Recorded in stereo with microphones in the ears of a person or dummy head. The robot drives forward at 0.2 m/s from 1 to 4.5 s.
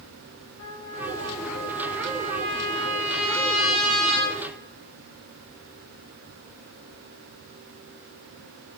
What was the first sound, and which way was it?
A trumpet, 80° left.